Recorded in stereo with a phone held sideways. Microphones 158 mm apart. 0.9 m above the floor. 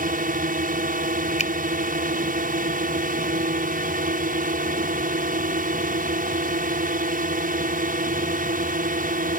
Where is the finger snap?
50° left (ahead or behind).